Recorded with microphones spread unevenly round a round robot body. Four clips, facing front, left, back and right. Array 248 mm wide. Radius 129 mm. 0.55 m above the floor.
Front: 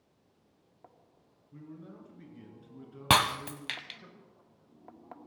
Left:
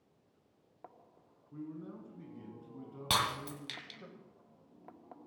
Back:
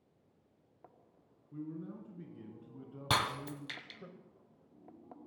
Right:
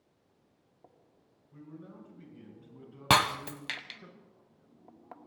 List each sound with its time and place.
1.5 s a man speaking: 135° left, 5.5 m; by 4.1 s 140° left, 2.5 m
3.1 s breaking glass: 40° right, 1.3 m